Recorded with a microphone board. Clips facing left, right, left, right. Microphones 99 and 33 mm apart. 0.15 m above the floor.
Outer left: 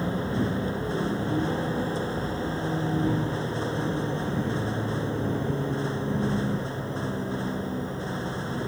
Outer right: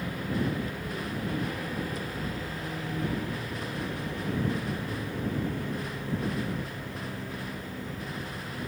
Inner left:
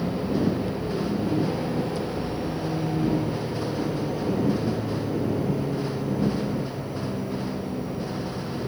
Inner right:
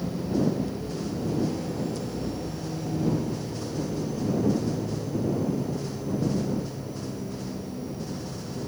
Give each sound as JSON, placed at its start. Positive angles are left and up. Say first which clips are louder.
{"t": 0.0, "sound": "a vehicle", "louder": "outer left 4 dB, inner left 2 dB", "side_deg": 30}